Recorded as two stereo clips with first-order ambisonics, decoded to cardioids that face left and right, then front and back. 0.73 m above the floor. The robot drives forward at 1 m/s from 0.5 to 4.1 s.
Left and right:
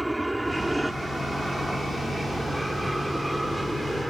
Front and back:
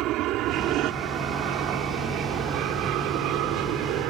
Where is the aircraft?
175° right.